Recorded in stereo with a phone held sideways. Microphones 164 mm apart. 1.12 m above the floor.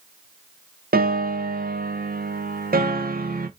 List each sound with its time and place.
0.9 s a piano: 65° right (ahead or behind), 0.6 m